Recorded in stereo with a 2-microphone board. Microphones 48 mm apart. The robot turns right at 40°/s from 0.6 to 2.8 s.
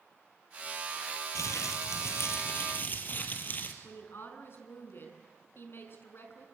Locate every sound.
1.4 s crumpling: 85° left, 2.5 m; by 3.7 s 140° left, 2.5 m
3.8 s a woman speaking: 50° left (ahead or behind), 5 m